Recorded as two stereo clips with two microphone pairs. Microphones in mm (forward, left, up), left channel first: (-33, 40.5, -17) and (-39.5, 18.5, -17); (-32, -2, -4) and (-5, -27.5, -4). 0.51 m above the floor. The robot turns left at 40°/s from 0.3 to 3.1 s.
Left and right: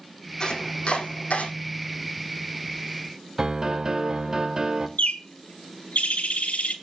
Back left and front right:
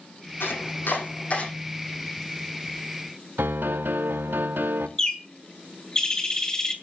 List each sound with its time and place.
0.4 s chopping: 125° left, 6 m; by 1.5 s 80° left, 6 m
3.4 s a piano: 45° right, 0.8 m
5.0 s a bird: 65° left, 2 m